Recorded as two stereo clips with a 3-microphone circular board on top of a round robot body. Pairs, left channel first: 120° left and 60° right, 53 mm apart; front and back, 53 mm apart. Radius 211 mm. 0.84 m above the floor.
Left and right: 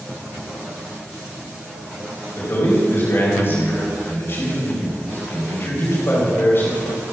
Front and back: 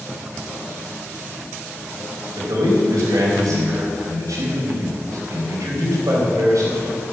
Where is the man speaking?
170° left, 4.5 m.